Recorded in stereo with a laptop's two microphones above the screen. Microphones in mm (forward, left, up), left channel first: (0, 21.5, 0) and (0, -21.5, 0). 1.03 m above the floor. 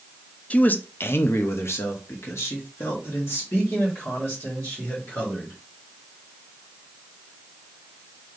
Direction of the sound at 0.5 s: 30° left (ahead or behind).